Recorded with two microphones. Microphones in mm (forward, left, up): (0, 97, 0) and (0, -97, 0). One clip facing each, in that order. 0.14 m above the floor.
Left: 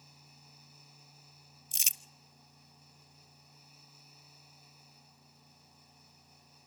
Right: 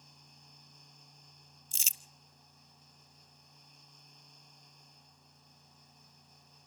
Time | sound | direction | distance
1.7 | crumpling | 70° left (ahead or behind) | 0.6 m